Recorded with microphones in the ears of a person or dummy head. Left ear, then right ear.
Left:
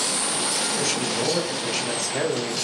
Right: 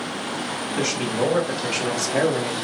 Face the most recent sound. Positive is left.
turn(degrees=-75)  # may be behind; listen again after turning